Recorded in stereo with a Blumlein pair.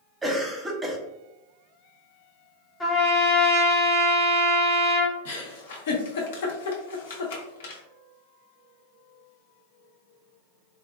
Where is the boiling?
No boiling in this recording.